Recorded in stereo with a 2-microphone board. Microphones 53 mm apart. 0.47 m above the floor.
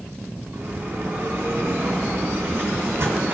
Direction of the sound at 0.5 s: 50° right (ahead or behind).